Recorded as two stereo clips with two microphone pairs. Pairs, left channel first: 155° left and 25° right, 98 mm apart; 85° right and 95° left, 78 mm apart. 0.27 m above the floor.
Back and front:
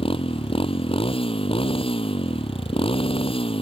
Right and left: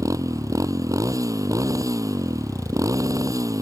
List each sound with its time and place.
0.0 s a motorcycle: 140° left